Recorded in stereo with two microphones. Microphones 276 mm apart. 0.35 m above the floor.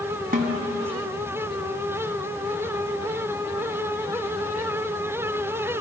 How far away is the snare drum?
About 1.6 m.